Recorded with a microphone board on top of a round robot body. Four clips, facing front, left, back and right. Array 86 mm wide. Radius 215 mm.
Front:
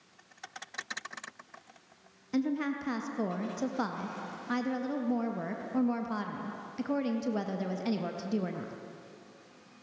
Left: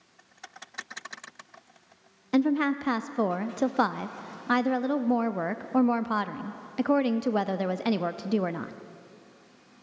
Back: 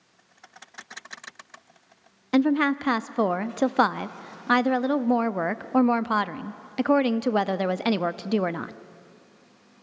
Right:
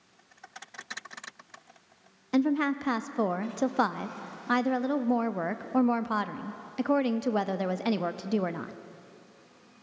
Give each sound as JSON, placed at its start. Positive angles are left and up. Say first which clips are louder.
{"t": 2.3, "sound": "a woman speaking", "louder": "left 2 dB, back 10 dB", "azimuth_deg": 180, "distance_m": 0.8}